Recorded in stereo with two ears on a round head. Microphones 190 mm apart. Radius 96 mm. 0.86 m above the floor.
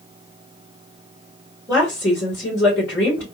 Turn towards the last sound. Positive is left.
turn(degrees=5)  # may be behind; listen again after turning